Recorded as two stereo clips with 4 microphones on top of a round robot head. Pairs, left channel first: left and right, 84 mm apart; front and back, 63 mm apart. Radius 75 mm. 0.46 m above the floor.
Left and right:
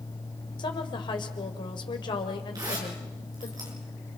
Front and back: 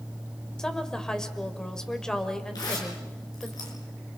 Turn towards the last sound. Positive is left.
turn(degrees=-35)